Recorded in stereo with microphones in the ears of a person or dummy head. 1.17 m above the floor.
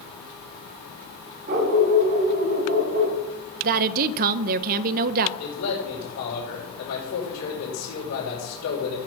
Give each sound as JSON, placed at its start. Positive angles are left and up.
{"t": 1.5, "sound": "a dog barking", "side_deg": -55, "distance_m": 1.8}
{"t": 3.6, "sound": "a woman speaking", "side_deg": -50, "distance_m": 0.5}
{"t": 5.4, "sound": "a man speaking", "side_deg": 80, "distance_m": 5.0}